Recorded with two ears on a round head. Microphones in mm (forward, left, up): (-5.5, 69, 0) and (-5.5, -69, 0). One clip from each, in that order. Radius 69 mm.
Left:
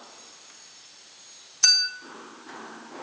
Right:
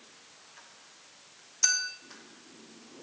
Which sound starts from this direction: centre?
A clink, at 1.6 s.